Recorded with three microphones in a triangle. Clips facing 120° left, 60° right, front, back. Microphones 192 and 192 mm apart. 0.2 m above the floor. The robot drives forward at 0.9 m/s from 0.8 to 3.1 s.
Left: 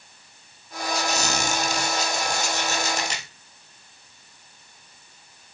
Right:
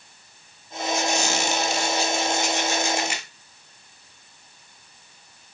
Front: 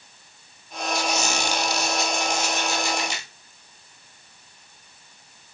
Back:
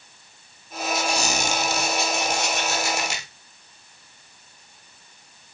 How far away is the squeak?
About 0.8 m.